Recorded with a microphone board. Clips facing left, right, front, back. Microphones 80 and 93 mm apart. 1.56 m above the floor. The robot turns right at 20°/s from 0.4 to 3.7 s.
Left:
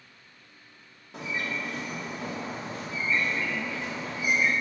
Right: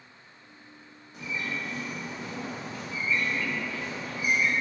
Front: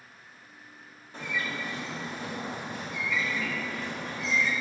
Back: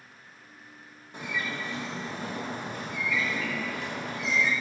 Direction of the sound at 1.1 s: 105° left.